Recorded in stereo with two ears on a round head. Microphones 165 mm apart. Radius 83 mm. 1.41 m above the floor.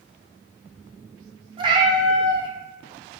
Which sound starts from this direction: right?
A cat meowing, at 1.6 s.